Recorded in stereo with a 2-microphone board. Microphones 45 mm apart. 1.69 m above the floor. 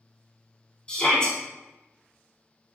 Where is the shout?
20° left (ahead or behind), 3 m.